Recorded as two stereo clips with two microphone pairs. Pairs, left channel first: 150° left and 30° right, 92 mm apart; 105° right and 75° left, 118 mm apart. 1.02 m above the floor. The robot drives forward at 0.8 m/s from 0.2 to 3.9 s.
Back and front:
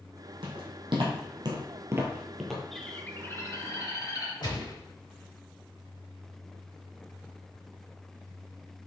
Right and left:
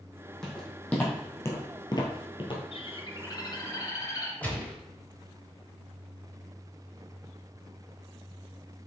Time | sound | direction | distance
0.4 | footsteps | 25° right | 3 m
2.7 | a bird | 125° right | 0.5 m
4.4 | a gunshot | straight behind | 1.4 m